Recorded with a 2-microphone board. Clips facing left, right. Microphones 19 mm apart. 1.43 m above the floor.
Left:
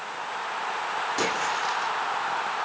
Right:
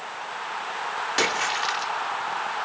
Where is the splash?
40° right (ahead or behind), 3 m.